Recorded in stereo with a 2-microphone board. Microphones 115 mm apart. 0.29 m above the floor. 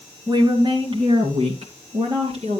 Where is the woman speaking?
35° right (ahead or behind), 2.5 m; by 2.6 s 60° right (ahead or behind), 4 m.